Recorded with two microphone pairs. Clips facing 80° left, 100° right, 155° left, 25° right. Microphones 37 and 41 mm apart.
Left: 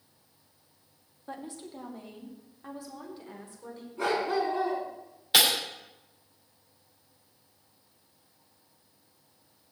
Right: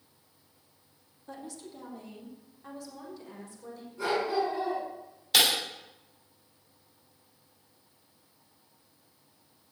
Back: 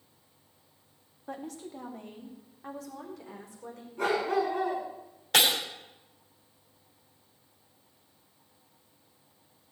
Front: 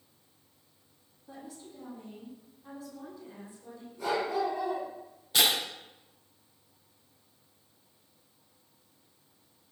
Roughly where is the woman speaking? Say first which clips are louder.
Left 2 dB, back 7 dB; behind left.